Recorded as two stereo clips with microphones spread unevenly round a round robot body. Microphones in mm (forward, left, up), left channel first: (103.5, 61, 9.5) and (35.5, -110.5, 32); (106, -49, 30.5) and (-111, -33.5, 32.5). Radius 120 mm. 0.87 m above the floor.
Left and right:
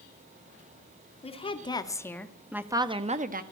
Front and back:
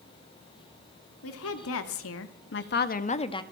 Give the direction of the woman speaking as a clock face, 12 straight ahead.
12 o'clock.